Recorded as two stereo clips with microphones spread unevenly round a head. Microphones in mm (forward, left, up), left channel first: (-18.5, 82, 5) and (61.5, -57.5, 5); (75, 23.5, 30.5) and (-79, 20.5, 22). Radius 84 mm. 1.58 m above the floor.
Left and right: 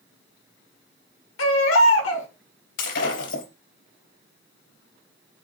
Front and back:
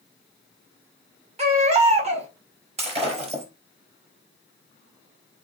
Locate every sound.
1.4 s a baby crying: 130° left, 1.7 m
2.8 s breaking glass: 130° left, 4 m